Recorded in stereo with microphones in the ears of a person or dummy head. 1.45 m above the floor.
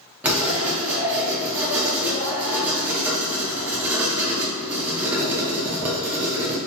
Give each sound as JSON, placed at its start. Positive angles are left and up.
{"t": 0.2, "sound": "writing", "side_deg": -15, "distance_m": 0.5}